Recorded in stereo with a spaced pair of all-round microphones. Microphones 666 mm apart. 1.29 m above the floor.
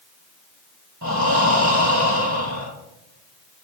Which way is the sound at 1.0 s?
25° right (ahead or behind).